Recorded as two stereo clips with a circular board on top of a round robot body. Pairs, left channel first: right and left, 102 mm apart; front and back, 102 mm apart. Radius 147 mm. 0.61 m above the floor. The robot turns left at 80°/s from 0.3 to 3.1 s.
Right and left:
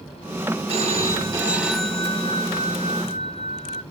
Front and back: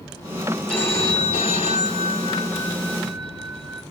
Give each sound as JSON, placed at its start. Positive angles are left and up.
{"t": 0.7, "sound": "a phone ringing", "azimuth_deg": 85, "distance_m": 1.7}